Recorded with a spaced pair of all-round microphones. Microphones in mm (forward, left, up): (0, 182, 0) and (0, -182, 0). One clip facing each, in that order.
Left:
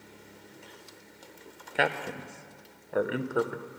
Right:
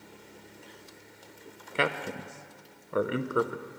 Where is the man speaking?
10° right (ahead or behind), 0.6 m.